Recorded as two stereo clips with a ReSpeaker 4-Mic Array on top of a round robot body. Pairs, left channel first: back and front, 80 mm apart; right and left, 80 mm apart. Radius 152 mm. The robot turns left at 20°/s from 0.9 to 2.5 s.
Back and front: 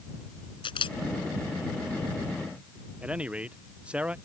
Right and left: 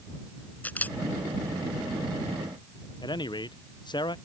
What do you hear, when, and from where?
0.6 s a camera shutter: 160° right; by 1.0 s 165° right
3.0 s a man speaking: 75° right